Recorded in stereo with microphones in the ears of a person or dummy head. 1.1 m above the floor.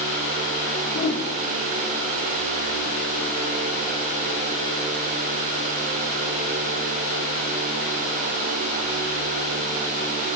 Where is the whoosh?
60° left (ahead or behind), 1.6 m.